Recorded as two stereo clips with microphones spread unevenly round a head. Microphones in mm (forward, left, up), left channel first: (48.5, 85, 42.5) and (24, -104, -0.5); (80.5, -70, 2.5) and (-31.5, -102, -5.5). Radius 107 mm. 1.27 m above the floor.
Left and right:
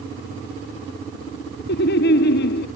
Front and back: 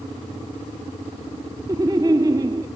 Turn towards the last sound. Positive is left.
turn(degrees=125)